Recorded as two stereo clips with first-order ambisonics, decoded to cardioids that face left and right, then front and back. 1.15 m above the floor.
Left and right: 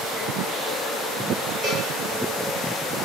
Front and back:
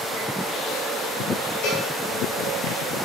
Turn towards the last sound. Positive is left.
turn(degrees=-15)